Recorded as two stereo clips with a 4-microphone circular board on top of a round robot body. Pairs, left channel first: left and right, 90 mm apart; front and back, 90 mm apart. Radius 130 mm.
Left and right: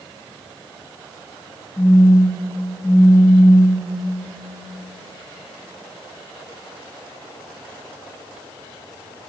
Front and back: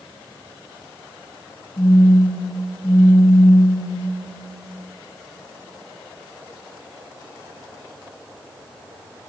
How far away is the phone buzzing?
About 1.9 m.